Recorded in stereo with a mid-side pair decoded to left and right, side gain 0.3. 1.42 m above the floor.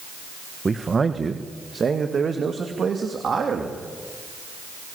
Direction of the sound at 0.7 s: 40° right.